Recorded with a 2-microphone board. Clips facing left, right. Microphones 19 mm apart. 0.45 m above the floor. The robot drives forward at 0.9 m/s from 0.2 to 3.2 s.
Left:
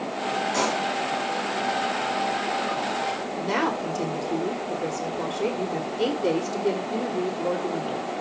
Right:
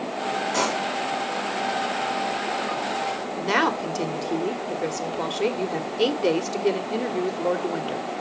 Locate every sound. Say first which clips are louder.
0.5 s a pop: right 1 dB; 10° right (ahead or behind), 3 m
3.4 s a woman speaking: right 4 dB; 35° right (ahead or behind), 1.6 m